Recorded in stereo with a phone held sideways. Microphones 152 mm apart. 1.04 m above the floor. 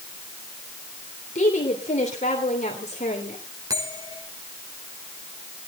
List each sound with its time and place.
1.4 s a woman speaking: 50° left (ahead or behind), 3 m
3.7 s a bell: 20° right (ahead or behind), 5.5 m